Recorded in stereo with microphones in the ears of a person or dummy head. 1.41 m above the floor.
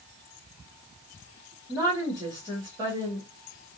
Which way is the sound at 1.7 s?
15° right (ahead or behind).